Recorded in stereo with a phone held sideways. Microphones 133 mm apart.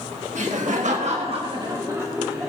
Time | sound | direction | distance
0.3 | laughter | 65° right (ahead or behind) | 1.6 m